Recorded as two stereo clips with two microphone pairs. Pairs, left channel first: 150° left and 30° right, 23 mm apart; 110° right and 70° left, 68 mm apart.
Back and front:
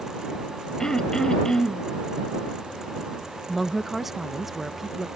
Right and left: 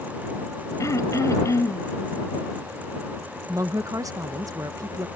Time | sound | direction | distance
0.8 | throat clearing | 150° right | ?
3.5 | a woman speaking | 45° left | ?